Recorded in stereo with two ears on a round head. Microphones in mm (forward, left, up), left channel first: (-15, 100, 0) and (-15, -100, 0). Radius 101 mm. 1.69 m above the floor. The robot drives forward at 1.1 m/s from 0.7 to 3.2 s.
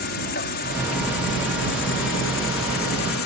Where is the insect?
45° left (ahead or behind); by 3.3 s 65° left (ahead or behind).